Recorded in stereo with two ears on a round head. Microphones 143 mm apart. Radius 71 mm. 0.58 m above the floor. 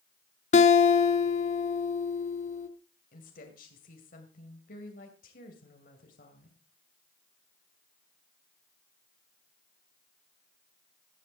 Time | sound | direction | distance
0.5 | a guitar | 45° left (ahead or behind) | 0.8 m
3.1 | a woman speaking | 55° left (ahead or behind) | 2.5 m